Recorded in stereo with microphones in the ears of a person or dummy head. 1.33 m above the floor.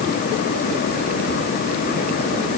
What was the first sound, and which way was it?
Only background noise.